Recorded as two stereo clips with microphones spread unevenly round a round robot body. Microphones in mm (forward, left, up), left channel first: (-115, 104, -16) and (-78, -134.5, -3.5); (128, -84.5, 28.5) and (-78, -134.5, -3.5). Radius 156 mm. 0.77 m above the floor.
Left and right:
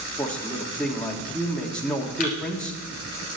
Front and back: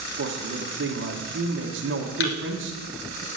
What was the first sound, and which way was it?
A man speaking, 175° right.